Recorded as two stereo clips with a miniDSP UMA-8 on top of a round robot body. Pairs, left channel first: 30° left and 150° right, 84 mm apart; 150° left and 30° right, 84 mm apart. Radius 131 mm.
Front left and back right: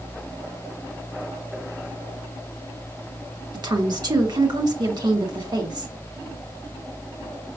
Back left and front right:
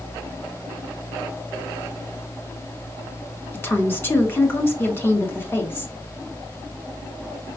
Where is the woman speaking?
150° right, 1.3 m.